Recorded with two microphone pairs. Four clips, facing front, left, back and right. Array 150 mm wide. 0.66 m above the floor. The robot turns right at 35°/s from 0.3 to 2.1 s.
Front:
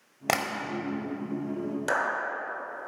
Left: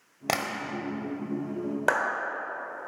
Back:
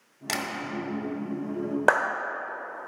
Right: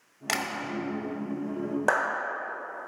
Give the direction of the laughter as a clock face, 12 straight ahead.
I don't hear laughter.